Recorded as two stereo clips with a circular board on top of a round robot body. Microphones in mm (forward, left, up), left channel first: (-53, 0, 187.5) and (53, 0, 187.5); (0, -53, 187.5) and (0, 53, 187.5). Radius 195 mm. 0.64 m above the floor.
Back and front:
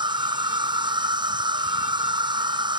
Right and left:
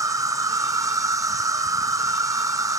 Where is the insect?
35° left.